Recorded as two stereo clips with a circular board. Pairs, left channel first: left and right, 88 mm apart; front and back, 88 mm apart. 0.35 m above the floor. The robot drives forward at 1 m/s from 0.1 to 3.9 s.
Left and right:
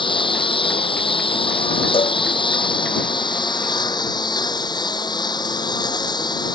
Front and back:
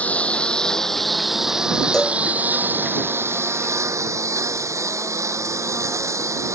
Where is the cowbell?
85° left.